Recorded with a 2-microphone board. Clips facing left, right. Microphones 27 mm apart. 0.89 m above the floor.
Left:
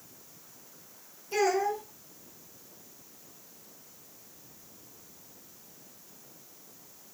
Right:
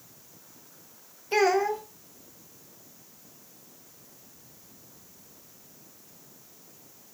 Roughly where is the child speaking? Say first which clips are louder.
Right 4 dB; right.